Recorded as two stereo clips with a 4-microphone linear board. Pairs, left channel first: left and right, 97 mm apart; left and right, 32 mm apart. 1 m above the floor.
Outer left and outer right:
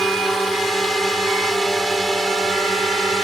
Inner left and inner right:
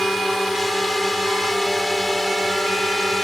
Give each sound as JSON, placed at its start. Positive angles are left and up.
{"t": 0.0, "sound": "a drone", "side_deg": 0}